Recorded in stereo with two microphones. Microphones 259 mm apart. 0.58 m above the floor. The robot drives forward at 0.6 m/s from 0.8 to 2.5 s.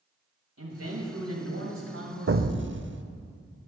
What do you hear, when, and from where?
0.6 s a man speaking: 75° right (ahead or behind), 3 m; by 2.9 s 65° right (ahead or behind), 3.5 m
2.3 s an explosion: 60° right (ahead or behind), 0.5 m; by 3.0 s 45° right (ahead or behind), 0.6 m